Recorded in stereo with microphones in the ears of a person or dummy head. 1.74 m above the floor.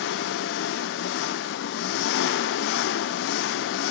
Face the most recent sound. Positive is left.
turn(degrees=65)  # may be behind; listen again after turning